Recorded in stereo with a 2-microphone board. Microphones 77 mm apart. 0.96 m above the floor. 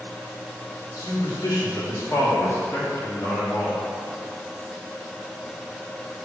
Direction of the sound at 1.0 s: 65° left (ahead or behind).